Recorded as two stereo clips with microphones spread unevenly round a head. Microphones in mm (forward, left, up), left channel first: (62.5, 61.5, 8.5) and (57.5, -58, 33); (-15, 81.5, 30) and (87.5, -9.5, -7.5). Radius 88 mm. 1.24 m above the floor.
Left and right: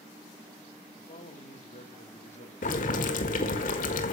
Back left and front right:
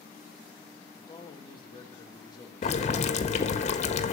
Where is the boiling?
100° left, 1.5 m.